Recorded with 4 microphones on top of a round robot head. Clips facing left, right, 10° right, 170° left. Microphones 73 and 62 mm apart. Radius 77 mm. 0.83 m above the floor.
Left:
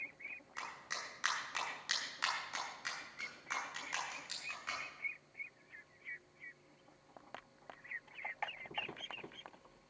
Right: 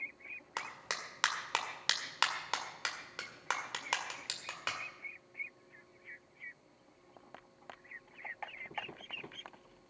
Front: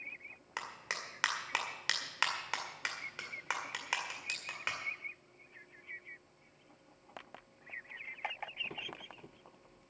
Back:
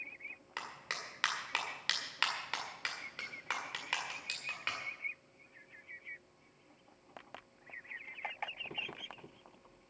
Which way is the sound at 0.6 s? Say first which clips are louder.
Right 4 dB, front 2 dB; 90° right.